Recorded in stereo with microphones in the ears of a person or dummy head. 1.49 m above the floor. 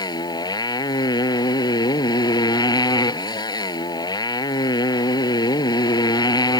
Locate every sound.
0.0 s a motorcycle: 20° left (ahead or behind)